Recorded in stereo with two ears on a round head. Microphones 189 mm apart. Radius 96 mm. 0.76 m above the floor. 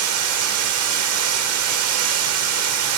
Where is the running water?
75° right (ahead or behind), 1.6 m.